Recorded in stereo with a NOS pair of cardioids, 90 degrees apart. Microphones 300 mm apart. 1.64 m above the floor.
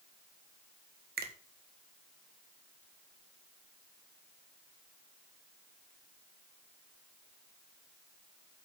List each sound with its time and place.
1.2 s a finger snap: 30° right, 1.8 m